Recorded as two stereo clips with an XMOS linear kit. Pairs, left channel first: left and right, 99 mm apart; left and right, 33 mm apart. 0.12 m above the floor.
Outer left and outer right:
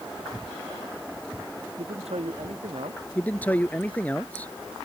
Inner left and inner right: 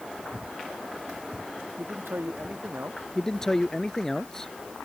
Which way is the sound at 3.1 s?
15° left (ahead or behind).